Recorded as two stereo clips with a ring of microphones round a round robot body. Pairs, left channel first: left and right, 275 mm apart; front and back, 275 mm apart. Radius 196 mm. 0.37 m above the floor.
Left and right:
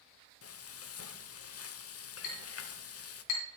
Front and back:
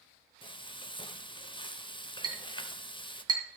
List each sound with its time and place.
0.4 s frying: 70° left, 0.8 m
2.2 s a clink: 105° left, 3 m